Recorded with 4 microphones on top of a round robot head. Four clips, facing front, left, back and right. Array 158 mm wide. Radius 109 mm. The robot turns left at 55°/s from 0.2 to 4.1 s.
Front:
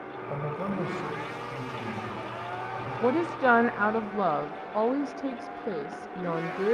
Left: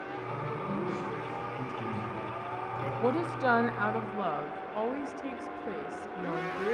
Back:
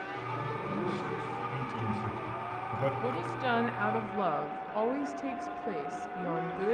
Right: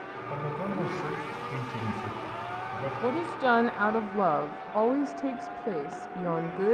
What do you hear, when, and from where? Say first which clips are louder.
0.3 s a man speaking: right 4 dB, front 5 dB; 25° right, 4.5 m; by 2.9 s 165° right, 4.5 m
3.0 s a woman speaking: right 1 dB, front 8 dB; 5° left, 1.0 m; by 6.8 s 55° right, 1.0 m